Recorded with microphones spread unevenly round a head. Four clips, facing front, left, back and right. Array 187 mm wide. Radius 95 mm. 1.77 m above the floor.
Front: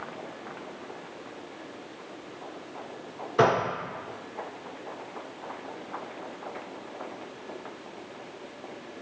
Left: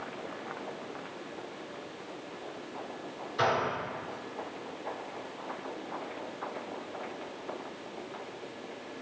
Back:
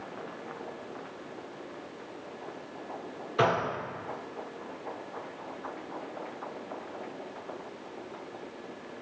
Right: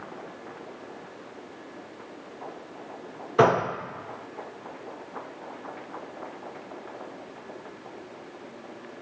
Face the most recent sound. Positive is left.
turn(degrees=-70)